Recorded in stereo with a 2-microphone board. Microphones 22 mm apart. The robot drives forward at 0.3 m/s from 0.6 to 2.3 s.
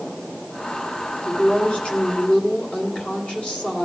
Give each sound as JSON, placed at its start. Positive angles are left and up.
{"t": 1.2, "sound": "a woman speaking", "side_deg": 55, "distance_m": 2.0}